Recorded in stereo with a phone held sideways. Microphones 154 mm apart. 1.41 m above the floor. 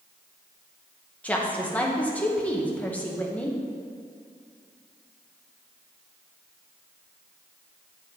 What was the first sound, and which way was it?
A woman speaking, 10° left (ahead or behind).